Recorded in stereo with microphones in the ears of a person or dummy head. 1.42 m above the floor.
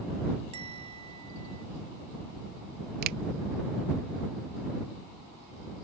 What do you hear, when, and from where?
0.5 s a bell: 30° right (ahead or behind)
3.0 s a finger snap: 50° right (ahead or behind)